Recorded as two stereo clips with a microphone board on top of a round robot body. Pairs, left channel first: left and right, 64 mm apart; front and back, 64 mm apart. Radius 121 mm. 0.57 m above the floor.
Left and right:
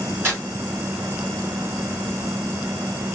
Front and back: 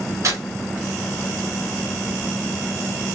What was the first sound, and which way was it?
Tearing paper, 145° right.